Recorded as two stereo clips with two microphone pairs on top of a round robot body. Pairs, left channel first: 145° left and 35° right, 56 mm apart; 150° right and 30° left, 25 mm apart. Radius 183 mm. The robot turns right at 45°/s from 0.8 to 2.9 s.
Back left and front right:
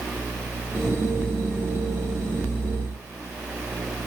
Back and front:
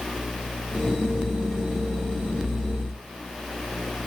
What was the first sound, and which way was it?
Only background noise.